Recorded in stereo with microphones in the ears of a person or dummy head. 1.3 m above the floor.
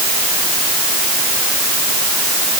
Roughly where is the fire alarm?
I don't hear a fire alarm.